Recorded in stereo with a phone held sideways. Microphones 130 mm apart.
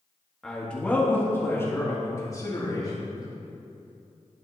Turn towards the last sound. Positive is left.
turn(degrees=30)  # may be behind; listen again after turning